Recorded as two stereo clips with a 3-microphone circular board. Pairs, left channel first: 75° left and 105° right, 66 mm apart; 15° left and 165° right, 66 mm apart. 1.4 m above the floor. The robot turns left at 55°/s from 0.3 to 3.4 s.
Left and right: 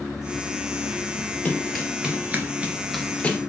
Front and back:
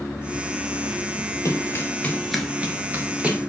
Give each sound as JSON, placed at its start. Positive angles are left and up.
{"t": 1.4, "sound": "running footsteps", "azimuth_deg": 5, "distance_m": 2.0}